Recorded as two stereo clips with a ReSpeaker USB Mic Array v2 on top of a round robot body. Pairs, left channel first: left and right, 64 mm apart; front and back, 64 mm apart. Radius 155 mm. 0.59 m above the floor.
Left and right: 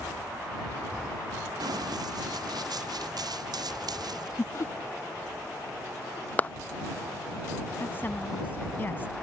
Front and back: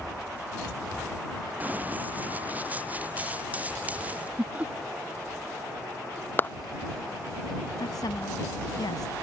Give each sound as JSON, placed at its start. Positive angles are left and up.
{"t": 1.6, "sound": "running footsteps", "azimuth_deg": -110}
{"t": 4.4, "sound": "laughter", "azimuth_deg": 120}
{"t": 6.4, "sound": "a clap", "azimuth_deg": 40}
{"t": 7.8, "sound": "a woman speaking", "azimuth_deg": 30}